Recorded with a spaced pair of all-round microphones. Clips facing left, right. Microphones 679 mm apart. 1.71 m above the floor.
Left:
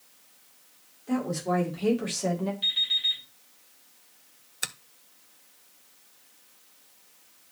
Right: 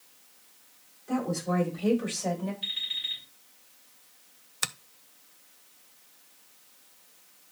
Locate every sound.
1.1 s a woman speaking: 85° left, 3.5 m; by 2.5 s 80° left, 2.5 m
2.6 s an alarm clock: 80° left, 6 m
4.6 s a finger snap: 35° right (ahead or behind), 0.5 m